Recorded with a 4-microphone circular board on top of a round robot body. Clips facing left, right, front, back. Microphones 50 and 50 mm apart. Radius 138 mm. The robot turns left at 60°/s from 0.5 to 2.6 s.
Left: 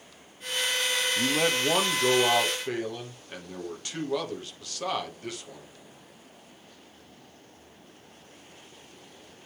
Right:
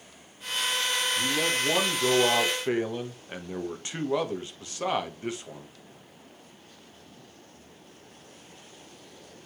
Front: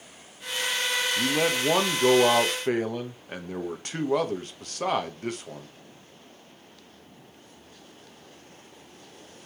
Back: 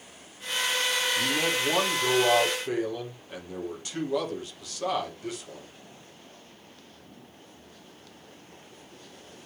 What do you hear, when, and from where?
1.2 s a man speaking: 55° left, 1.6 m; by 5.7 s 30° right, 1.6 m